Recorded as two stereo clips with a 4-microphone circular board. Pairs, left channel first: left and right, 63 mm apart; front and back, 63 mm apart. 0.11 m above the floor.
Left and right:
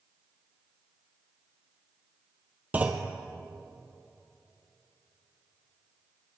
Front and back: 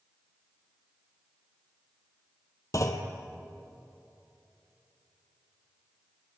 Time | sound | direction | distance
2.7 | a clunk | 25° right | 1.1 m